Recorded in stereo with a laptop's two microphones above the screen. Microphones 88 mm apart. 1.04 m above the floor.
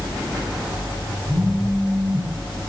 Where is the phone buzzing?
45° left (ahead or behind), 5 m.